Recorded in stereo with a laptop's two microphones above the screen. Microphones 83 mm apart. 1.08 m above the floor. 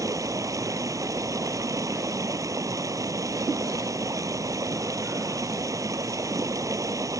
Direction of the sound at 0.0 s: 40° right (ahead or behind).